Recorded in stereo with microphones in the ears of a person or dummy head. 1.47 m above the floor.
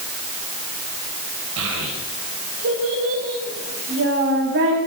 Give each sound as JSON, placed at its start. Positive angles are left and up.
{"t": 1.6, "sound": "a child speaking", "side_deg": -70, "distance_m": 4.0}